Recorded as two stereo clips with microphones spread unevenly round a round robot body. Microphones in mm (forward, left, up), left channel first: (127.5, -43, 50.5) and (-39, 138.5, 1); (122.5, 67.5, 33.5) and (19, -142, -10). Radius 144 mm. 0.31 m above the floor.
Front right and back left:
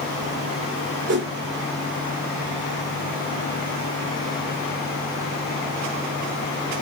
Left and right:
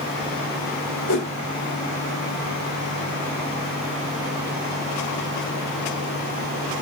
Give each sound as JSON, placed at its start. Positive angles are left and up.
{"t": 1.1, "sound": "a whoosh", "azimuth_deg": 90, "distance_m": 1.6}